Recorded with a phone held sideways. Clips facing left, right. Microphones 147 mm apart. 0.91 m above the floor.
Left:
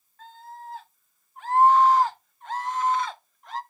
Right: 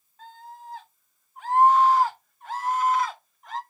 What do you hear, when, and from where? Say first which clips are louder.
0.2 s a scream: left 1 dB; 15° right (ahead or behind), 3 m; by 3.6 s centre (ahead or behind), 0.9 m